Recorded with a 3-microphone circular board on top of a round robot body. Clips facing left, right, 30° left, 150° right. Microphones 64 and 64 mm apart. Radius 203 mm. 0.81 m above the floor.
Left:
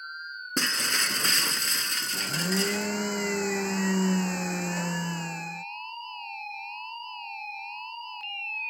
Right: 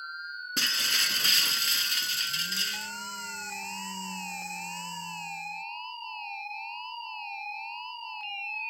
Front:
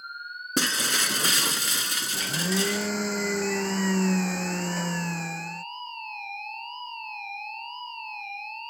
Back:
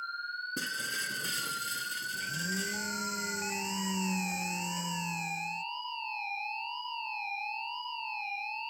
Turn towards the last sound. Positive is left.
turn(degrees=60)